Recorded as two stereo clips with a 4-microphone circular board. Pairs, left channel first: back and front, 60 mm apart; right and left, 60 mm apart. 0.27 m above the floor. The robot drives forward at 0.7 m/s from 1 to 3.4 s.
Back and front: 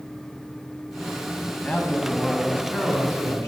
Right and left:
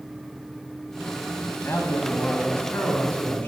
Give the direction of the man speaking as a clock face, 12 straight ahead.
4 o'clock.